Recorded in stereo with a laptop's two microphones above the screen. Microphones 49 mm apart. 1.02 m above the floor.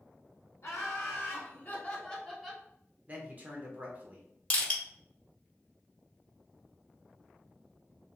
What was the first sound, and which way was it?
Laughter, 60° left (ahead or behind).